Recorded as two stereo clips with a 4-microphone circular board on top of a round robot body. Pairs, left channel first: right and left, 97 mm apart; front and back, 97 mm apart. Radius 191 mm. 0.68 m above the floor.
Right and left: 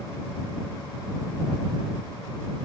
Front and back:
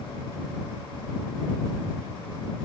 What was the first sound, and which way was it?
Only background noise.